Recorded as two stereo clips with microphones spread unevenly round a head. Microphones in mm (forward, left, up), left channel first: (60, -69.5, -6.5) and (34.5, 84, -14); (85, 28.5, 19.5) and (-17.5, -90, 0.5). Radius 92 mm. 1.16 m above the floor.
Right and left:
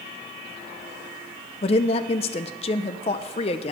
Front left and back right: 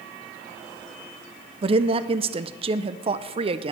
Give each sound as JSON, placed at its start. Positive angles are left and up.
{"t": 1.6, "sound": "a woman speaking", "azimuth_deg": -120, "distance_m": 0.5}